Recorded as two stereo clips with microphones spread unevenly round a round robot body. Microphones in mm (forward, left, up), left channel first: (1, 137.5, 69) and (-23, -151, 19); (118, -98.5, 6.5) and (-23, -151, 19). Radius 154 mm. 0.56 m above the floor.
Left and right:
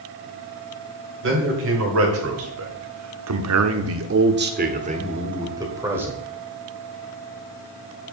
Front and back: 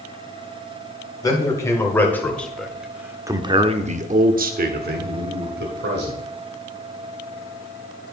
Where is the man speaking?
45° right, 2.5 m; by 6.2 s 175° right, 2.5 m.